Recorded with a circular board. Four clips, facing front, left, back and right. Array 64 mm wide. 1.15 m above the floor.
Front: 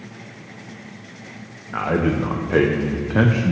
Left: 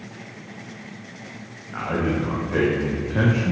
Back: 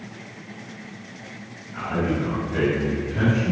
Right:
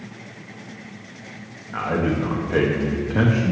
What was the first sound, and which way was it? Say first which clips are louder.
A man speaking: right 2 dB, front 4 dB; 10° right.